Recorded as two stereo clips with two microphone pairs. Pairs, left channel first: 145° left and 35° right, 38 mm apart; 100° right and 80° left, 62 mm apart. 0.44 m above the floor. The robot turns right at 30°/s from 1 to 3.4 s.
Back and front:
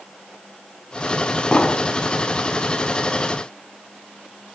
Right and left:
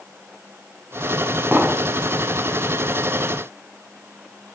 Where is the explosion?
120° left, 0.6 m; by 1.9 s 130° left, 0.6 m.